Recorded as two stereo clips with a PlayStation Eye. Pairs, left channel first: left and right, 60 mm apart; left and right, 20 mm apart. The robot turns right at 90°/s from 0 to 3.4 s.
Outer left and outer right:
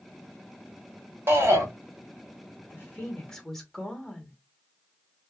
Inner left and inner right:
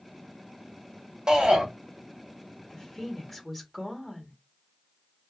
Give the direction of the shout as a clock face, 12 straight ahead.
4 o'clock.